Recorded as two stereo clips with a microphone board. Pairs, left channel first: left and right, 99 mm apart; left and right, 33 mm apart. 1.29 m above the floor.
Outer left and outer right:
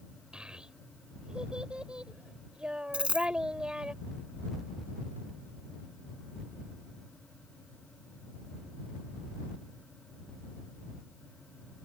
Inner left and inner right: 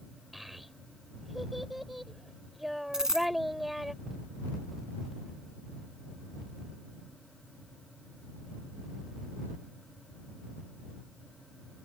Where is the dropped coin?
10° right (ahead or behind).